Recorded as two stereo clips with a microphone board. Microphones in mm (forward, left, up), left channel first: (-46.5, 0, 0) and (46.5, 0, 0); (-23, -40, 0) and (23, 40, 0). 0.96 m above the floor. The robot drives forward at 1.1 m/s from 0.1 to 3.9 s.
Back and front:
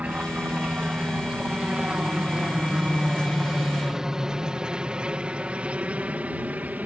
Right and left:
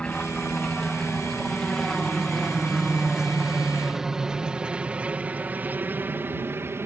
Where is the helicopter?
55° right; by 6.9 s 50° left.